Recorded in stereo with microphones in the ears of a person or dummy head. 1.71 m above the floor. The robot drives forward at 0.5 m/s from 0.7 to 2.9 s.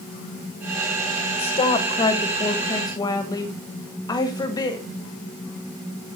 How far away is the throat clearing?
I don't hear throat clearing.